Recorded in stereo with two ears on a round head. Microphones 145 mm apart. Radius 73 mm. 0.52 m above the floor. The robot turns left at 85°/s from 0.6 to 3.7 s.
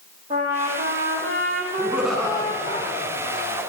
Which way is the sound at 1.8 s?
155° right.